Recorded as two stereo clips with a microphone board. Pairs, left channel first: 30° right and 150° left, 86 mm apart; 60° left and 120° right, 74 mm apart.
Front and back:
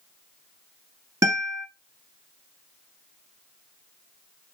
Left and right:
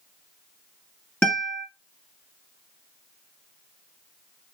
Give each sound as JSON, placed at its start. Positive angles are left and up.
{"t": 1.2, "sound": "a guitar", "azimuth_deg": 125, "distance_m": 1.0}